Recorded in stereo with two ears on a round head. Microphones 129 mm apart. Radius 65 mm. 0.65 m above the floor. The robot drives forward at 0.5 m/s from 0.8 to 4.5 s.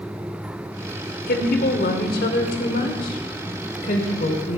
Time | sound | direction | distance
1.3 | a woman speaking | 70° left (ahead or behind) | 1.7 m